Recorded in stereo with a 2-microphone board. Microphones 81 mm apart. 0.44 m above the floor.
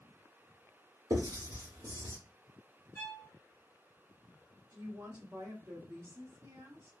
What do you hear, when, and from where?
1.1 s writing: 70° right (ahead or behind), 2.5 m
3.0 s a violin: 25° left (ahead or behind), 1.4 m
4.7 s a woman speaking: 35° right (ahead or behind), 1.1 m